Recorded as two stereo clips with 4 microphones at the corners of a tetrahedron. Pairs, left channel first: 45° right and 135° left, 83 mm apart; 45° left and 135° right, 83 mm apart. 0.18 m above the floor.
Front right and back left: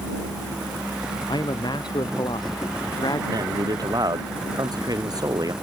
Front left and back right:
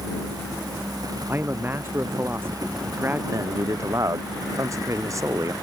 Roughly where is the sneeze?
No sneeze in this recording.